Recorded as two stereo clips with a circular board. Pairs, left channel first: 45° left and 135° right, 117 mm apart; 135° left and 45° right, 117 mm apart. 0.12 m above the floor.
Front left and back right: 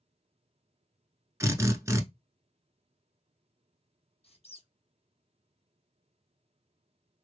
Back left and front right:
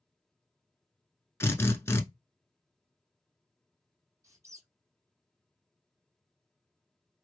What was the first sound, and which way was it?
A drill, 175° right.